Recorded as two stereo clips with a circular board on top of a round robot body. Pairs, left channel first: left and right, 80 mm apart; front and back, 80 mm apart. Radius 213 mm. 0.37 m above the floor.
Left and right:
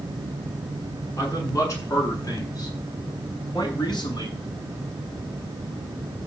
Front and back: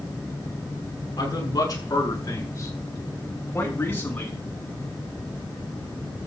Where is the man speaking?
40° left, 8.5 m; by 4.4 s 70° left, 7 m.